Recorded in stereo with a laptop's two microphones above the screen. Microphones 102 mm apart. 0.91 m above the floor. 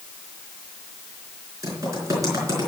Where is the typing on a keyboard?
35° right (ahead or behind), 4.5 m.